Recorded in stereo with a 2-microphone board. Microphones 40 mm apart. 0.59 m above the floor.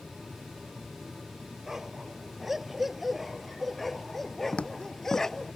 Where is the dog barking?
10° right (ahead or behind); by 5.5 s 10° left (ahead or behind).